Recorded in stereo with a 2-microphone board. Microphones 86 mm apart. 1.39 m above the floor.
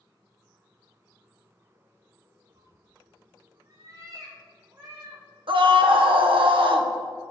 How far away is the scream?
About 1.2 m.